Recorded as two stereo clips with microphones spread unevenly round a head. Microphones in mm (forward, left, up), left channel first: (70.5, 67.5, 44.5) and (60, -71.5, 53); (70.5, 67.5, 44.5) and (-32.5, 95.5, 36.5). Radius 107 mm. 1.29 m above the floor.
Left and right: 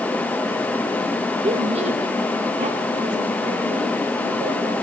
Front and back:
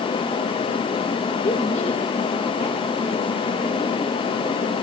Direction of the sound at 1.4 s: 45° right.